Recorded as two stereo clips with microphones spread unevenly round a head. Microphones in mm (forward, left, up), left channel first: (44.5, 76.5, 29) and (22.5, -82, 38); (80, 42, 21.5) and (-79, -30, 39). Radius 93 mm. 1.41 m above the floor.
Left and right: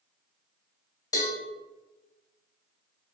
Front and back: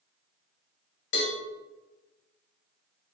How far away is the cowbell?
About 1.3 m.